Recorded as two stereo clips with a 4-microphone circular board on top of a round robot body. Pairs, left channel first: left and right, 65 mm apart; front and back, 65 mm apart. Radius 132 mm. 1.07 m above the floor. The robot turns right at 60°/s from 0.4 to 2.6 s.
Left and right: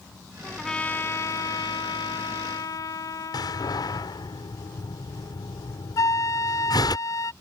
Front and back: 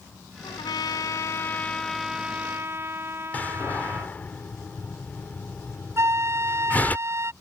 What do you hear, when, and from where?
0.4 s a trumpet: 5° right; by 4.2 s 125° left
3.3 s a door slam: 70° left
6.0 s a flute: 135° left